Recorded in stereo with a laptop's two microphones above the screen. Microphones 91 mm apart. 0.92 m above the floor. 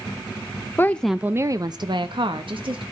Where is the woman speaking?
25° left (ahead or behind), 0.6 m; by 2.8 s 70° right (ahead or behind), 1.5 m.